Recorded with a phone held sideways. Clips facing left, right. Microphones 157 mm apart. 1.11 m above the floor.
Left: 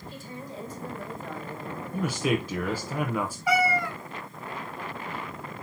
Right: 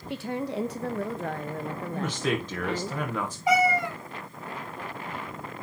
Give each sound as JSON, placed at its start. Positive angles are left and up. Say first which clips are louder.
{"t": 0.1, "sound": "a woman speaking", "louder": "right 12 dB", "side_deg": -70, "distance_m": 0.8}
{"t": 1.9, "sound": "a man speaking", "louder": "left 2 dB", "side_deg": 10, "distance_m": 0.9}
{"t": 3.5, "sound": "a cat meowing", "louder": "right 3 dB", "side_deg": -20, "distance_m": 1.2}